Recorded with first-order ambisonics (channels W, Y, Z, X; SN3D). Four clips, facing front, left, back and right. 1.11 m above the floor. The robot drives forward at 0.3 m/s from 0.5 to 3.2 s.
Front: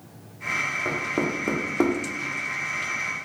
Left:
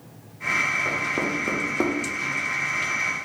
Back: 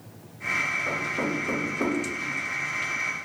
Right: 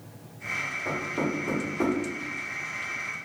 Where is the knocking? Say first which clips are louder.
Left 4 dB, front 2 dB; 25° left, 1.1 m; by 1.9 s 35° left, 0.9 m.